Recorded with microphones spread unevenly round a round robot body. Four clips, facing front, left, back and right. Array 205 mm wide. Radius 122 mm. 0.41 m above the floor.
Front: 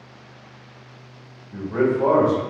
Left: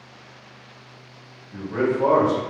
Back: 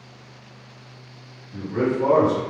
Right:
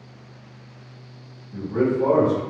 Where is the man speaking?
50° left, 1.9 m.